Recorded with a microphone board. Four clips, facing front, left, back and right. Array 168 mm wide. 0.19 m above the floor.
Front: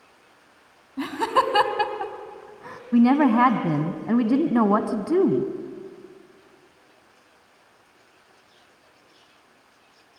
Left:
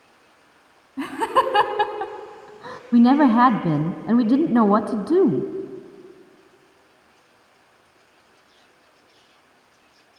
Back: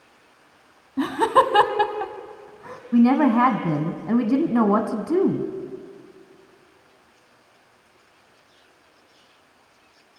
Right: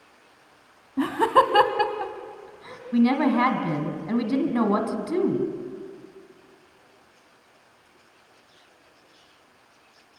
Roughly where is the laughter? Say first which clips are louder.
Right 1 dB, back 4 dB; behind right.